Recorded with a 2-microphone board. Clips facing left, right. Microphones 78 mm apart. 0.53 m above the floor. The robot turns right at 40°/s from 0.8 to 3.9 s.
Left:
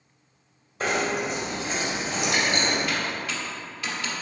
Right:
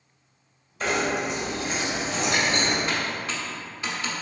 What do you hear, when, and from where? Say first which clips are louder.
0.8 s knocking: even; 110° left, 1.4 m; by 2.8 s 175° right, 1.4 m
2.9 s typing on a keyboard: even; 30° right (ahead or behind), 1.1 m; by 4.1 s 25° right (ahead or behind), 1.1 m